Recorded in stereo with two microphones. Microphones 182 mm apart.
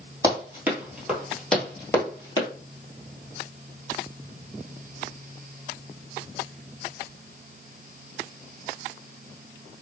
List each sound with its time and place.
0.2 s running footsteps: 20° right (ahead or behind), 1.8 m; by 2.5 s 20° left (ahead or behind), 1.8 m